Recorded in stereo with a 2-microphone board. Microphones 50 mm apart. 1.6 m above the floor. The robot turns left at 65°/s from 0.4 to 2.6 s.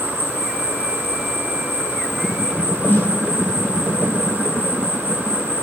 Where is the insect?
60° right, 1.7 m; by 5.6 s 160° left, 1.7 m.